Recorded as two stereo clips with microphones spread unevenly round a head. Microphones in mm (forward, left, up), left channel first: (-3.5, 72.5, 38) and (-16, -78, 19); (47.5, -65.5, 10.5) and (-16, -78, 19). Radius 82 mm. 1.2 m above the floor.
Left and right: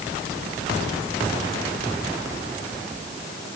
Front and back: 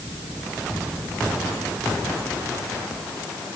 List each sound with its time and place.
Only background noise.